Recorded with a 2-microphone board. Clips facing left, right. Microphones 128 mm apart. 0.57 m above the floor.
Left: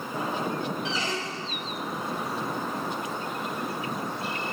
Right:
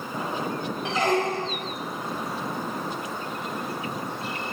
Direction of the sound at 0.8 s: 55° right (ahead or behind).